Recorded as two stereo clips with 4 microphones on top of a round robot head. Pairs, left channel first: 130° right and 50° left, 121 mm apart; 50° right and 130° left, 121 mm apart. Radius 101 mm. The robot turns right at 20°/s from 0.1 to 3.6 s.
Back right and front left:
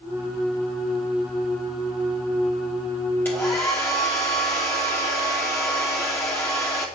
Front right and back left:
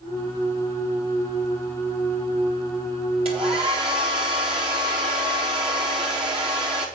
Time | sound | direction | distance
3.2 | a hair dryer | 160° left | 0.9 m